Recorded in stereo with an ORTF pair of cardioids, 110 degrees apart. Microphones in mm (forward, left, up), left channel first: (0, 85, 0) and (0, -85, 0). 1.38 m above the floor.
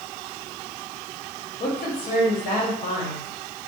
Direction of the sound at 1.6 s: 60° left.